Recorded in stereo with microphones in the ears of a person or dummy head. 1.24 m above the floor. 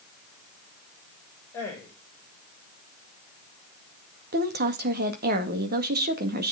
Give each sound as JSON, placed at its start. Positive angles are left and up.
{"t": 1.5, "sound": "a man speaking", "side_deg": 10, "distance_m": 6.5}
{"t": 4.3, "sound": "a woman speaking", "side_deg": -50, "distance_m": 1.9}